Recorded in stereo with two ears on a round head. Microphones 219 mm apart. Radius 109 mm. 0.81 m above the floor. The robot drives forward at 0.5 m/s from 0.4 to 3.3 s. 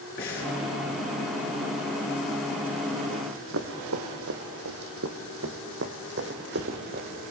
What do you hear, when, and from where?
0.2 s breathing: 40° left (ahead or behind), 7 m
3.1 s running footsteps: 55° right (ahead or behind), 2.0 m; by 7.1 s 40° right (ahead or behind), 2.5 m